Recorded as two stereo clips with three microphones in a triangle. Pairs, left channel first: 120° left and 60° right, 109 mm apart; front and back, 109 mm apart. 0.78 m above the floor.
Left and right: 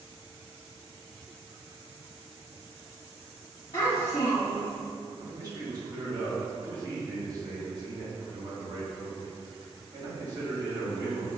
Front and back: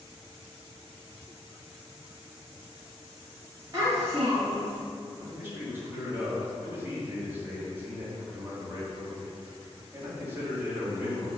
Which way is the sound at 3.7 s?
145° left.